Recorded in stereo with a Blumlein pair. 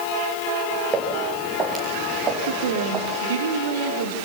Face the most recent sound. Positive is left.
turn(degrees=-60)